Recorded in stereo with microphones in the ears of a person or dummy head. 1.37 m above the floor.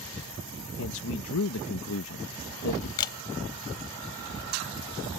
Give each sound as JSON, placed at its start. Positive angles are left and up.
{"t": 0.8, "sound": "a man speaking", "side_deg": 70}
{"t": 3.0, "sound": "a camera shutter", "side_deg": 20}